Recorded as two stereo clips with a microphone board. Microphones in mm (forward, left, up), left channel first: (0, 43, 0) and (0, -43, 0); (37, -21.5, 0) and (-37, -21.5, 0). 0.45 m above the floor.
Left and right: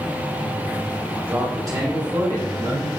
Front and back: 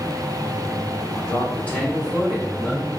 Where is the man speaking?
10° right, 0.8 m; by 2.9 s 95° right, 1.9 m.